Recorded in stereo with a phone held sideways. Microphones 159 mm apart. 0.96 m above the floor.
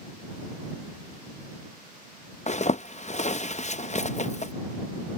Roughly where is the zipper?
Left.